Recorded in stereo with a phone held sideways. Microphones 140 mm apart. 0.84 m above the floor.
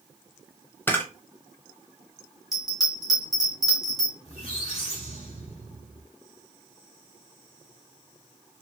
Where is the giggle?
No giggle in this recording.